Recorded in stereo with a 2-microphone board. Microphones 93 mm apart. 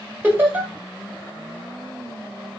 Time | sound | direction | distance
0.2 | laughter | 25° right (ahead or behind) | 1.5 m